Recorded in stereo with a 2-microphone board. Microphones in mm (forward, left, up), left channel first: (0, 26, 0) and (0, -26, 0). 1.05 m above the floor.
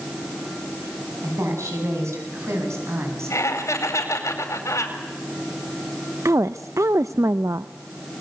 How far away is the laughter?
About 4.5 m.